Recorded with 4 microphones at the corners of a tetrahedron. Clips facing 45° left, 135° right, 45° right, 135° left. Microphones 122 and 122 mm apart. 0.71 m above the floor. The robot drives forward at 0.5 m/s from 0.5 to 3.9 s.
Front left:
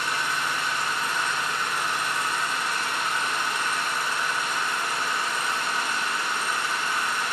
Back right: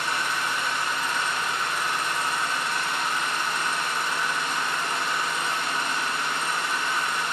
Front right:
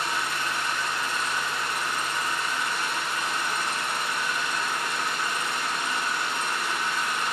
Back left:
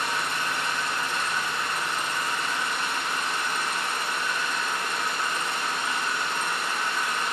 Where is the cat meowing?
I don't hear a cat meowing.